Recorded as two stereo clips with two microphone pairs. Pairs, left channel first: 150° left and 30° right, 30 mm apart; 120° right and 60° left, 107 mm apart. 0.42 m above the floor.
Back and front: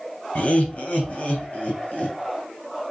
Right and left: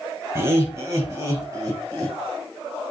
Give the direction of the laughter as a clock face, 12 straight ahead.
8 o'clock.